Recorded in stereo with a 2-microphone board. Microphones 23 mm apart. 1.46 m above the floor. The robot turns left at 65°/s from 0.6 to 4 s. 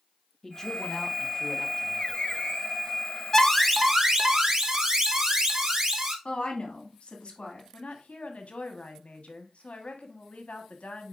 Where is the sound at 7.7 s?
85° left, 1.5 m.